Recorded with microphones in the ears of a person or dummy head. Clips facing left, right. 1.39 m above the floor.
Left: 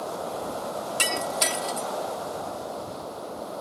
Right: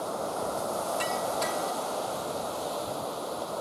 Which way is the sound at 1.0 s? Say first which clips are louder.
Left 1 dB; 45° left (ahead or behind).